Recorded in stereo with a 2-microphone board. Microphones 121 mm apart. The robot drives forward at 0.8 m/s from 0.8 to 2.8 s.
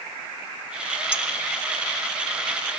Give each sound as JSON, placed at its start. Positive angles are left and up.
{"t": 1.1, "sound": "dishes clattering", "side_deg": 50, "distance_m": 2.5}